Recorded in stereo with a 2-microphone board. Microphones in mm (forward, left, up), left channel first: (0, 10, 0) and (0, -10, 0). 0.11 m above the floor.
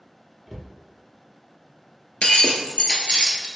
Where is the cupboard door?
Centre (ahead or behind), 0.8 m.